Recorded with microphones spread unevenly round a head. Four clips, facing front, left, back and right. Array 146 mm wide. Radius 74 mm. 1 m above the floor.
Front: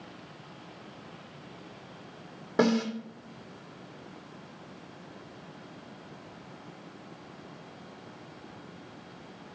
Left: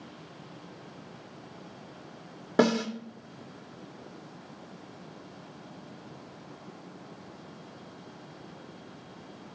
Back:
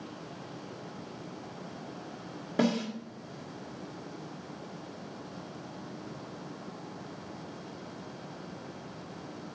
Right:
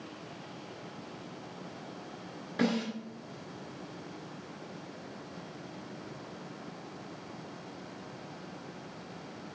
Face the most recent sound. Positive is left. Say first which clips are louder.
# left 6 dB, front 3 dB
turn(degrees=80)